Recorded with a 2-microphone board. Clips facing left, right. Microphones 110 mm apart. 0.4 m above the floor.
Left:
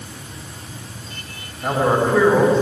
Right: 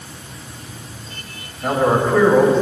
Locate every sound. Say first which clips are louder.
1.6 s a man speaking: right 1 dB; 5° left (ahead or behind), 4 m